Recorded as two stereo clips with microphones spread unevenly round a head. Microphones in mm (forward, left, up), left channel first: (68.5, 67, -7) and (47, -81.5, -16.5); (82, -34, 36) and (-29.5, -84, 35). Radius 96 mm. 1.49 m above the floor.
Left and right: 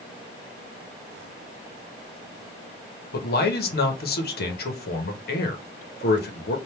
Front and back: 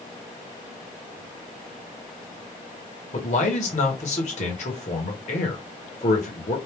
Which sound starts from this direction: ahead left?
A man speaking, at 3.1 s.